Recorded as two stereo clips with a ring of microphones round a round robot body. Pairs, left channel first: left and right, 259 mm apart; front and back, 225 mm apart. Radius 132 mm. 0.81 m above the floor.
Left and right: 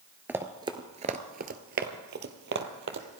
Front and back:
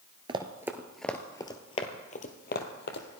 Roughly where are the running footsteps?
Behind.